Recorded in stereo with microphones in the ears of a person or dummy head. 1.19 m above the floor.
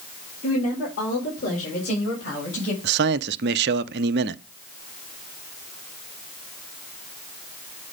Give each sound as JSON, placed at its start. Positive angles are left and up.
{"t": 0.4, "sound": "a woman speaking", "side_deg": 45, "distance_m": 3.0}
{"t": 2.8, "sound": "a man speaking", "side_deg": -50, "distance_m": 0.5}